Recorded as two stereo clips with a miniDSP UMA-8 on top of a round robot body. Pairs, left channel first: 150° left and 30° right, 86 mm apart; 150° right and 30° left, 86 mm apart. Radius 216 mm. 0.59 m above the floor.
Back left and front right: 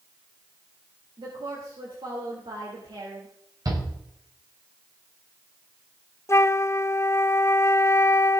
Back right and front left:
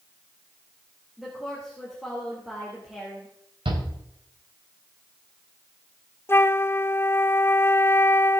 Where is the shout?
15° left, 5 m.